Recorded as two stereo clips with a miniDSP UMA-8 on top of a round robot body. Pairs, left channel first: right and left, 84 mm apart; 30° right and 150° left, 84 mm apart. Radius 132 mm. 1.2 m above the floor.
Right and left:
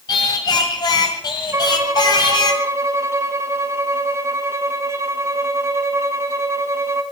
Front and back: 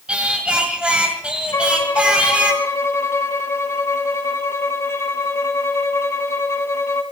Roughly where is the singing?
Behind right.